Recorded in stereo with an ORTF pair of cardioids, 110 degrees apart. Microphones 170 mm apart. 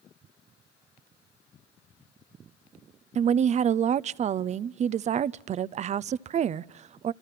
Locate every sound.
3.1 s a woman speaking: 45° right, 0.6 m